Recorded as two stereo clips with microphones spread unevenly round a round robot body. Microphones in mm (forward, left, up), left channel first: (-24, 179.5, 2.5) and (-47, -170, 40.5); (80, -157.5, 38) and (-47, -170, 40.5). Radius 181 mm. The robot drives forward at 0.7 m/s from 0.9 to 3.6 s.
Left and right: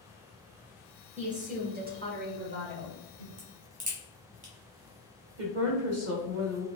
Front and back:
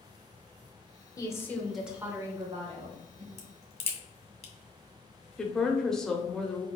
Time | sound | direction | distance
1.2 | a woman speaking | 30° right | 1.0 m
3.4 | a crack | 20° right | 1.5 m
5.4 | a woman speaking | 75° right | 1.0 m